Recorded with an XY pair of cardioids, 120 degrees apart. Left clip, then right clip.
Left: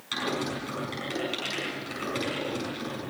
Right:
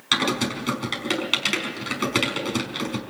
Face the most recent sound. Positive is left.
turn(degrees=-70)